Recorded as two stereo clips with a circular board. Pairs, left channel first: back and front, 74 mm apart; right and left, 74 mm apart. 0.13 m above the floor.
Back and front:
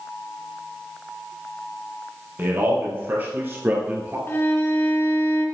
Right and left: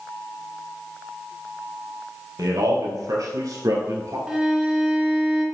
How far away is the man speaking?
About 3 m.